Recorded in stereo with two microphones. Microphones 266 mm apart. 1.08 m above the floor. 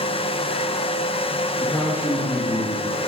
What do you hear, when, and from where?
1.6 s a man speaking: 15° left (ahead or behind), 2.0 m